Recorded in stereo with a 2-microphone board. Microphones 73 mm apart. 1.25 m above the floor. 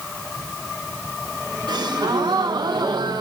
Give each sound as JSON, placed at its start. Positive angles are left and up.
{"t": 1.7, "sound": "a gasp", "side_deg": -75, "distance_m": 1.5}